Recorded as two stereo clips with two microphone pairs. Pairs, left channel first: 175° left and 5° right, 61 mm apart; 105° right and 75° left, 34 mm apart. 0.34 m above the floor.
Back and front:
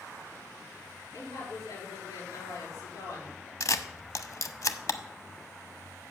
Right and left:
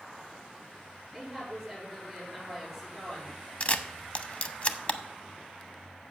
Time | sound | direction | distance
1.1 | a woman speaking | 175° left | 6 m
3.6 | a camera shutter | 150° right | 0.6 m